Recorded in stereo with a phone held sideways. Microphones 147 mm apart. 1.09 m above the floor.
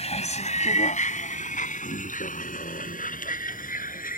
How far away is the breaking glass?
I don't hear breaking glass.